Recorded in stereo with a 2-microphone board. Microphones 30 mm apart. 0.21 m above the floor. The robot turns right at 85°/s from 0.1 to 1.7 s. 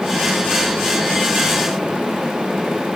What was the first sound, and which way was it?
Only background noise.